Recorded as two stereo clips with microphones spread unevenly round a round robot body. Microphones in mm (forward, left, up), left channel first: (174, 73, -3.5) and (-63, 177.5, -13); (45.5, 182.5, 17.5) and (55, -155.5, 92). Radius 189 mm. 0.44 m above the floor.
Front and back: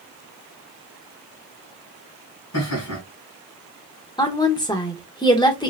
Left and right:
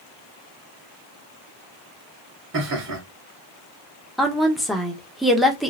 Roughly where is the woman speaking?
Ahead left.